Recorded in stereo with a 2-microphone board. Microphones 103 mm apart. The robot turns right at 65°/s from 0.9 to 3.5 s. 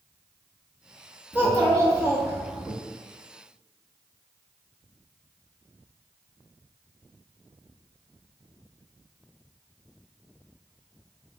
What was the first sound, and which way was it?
A child speaking, 20° right (ahead or behind).